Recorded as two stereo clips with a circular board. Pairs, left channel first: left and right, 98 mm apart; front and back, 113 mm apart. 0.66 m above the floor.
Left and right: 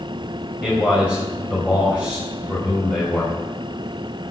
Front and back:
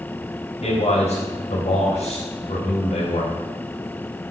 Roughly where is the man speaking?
Ahead.